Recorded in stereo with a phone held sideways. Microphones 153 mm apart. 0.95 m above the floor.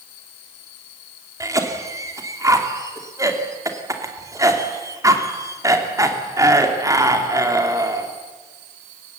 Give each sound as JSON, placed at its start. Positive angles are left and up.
{"t": 1.4, "sound": "a cough", "side_deg": -20, "distance_m": 3.0}